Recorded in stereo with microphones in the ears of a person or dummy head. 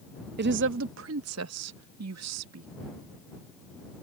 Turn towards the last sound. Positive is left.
turn(degrees=-80)